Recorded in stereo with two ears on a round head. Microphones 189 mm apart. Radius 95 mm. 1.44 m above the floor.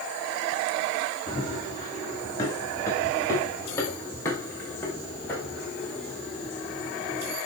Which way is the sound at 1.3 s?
15° left (ahead or behind).